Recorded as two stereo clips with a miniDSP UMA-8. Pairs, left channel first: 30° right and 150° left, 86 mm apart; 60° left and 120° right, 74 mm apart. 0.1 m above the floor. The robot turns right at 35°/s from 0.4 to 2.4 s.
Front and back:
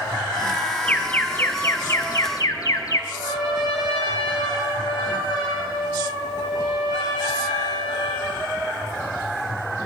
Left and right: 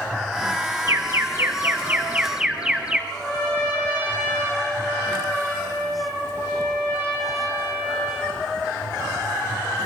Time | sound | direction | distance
0.9 | an alarm | 100° right | 1.2 m
3.1 | a trumpet | 10° right | 9.5 m